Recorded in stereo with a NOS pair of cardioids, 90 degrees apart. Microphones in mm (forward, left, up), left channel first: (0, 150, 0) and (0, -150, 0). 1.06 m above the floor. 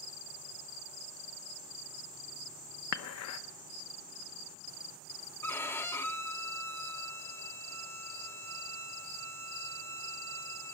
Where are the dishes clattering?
65° left, 0.9 m.